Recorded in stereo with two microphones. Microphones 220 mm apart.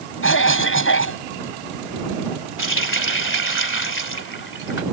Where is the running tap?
65° left (ahead or behind).